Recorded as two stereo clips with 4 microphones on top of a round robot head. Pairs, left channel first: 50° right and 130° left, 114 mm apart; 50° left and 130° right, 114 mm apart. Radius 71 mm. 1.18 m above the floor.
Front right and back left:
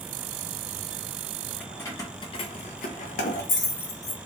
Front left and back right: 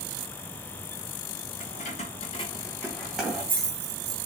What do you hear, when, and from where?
1.6 s keys jangling: 30° left, 0.8 m; by 4.2 s 75° right, 1.0 m